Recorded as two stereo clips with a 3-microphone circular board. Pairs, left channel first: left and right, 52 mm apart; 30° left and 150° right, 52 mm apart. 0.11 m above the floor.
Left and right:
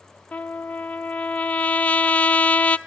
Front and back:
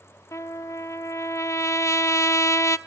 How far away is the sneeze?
I don't hear a sneeze.